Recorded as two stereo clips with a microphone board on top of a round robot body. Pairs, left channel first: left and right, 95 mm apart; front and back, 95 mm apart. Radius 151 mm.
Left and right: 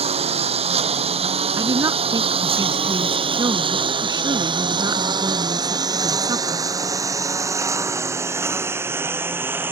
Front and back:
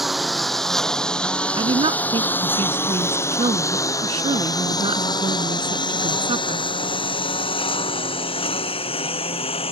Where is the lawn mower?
90° right; by 9.7 s 20° right.